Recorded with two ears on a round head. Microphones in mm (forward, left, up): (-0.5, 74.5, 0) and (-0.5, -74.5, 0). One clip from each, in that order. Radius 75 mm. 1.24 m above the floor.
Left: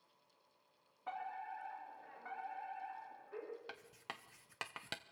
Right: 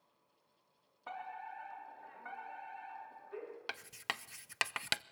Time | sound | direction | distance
1.1 | a fire alarm | 10° right (ahead or behind) | 5 m
3.7 | writing | 50° right (ahead or behind) | 0.6 m